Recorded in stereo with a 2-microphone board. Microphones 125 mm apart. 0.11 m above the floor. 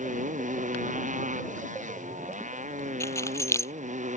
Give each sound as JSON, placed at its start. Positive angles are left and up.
{"t": 0.0, "sound": "a motorcycle", "side_deg": -85}
{"t": 3.0, "sound": "keys jangling", "side_deg": 20}